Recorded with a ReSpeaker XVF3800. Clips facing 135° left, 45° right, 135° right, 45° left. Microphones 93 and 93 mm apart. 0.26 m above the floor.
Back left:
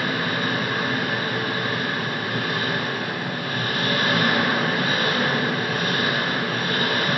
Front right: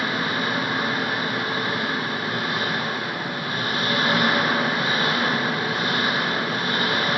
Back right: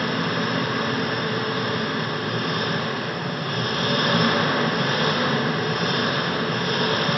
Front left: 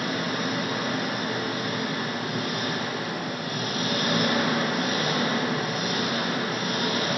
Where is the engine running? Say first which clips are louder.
Even, back right 4 dB; 115° right, 2.5 m.